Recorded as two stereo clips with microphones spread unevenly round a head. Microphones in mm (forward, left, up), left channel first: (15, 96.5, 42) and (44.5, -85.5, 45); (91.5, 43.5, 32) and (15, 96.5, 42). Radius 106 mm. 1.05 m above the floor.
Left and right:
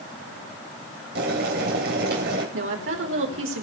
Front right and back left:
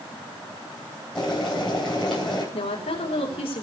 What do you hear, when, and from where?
1.1 s boiling: 125° right, 3 m
2.5 s a woman speaking: 75° right, 4 m